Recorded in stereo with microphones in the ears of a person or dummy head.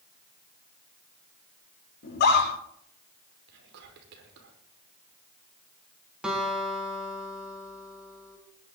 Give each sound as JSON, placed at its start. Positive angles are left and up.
{"t": 2.0, "sound": "a scream", "side_deg": 60, "distance_m": 5.5}
{"t": 3.5, "sound": "whispering", "side_deg": -65, "distance_m": 5.0}
{"t": 6.2, "sound": "a guitar", "side_deg": -5, "distance_m": 4.5}